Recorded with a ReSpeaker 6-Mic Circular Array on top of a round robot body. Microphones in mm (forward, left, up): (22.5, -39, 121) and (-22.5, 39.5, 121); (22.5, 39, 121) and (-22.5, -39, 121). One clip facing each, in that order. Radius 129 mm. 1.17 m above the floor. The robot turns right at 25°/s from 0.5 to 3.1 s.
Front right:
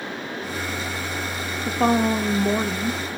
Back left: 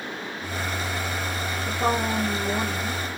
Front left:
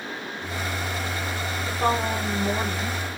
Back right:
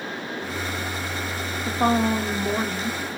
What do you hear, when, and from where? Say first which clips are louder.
1.7 s a woman speaking: front right 5 dB, back right 4 dB; 60° right, 0.9 m; by 3.0 s 25° right, 0.9 m